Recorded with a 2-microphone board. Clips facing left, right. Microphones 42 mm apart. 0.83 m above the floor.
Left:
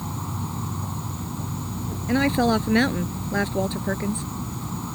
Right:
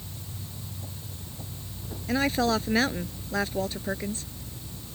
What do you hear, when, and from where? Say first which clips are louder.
0.0 s an insect: left 13 dB; 80° left
2.1 s a woman speaking: left 4 dB; 10° left (ahead or behind)